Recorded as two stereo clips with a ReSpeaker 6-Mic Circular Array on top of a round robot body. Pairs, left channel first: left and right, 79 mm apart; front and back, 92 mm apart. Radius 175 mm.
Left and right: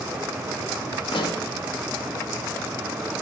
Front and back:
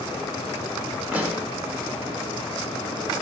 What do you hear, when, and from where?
1.1 s a pop: 105° left, 1.6 m